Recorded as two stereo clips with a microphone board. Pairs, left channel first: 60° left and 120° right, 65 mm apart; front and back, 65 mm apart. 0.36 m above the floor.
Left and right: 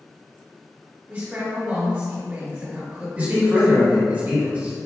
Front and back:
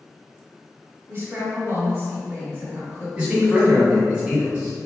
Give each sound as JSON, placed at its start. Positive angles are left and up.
{"t": 1.1, "sound": "a woman speaking", "azimuth_deg": -165, "distance_m": 1.7}
{"t": 3.2, "sound": "a man speaking", "azimuth_deg": -120, "distance_m": 1.6}